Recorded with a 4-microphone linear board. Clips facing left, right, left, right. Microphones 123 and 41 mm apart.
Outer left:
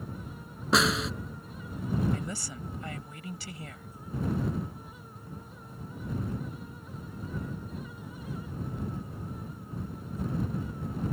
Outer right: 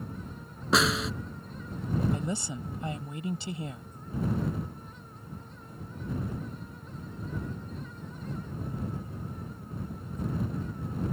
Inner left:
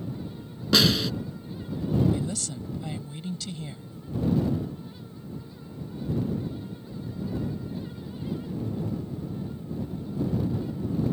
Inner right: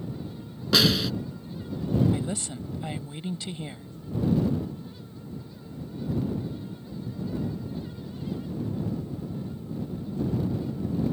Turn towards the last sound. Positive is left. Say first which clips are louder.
# outer right 3 dB, even
turn(degrees=-25)  # may be behind; listen again after turning